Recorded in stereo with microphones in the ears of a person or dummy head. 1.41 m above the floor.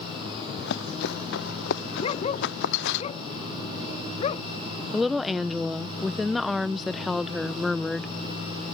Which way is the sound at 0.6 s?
65° left (ahead or behind).